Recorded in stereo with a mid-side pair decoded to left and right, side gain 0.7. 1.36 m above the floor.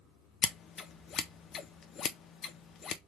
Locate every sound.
0.4 s scissors: 40° left, 0.6 m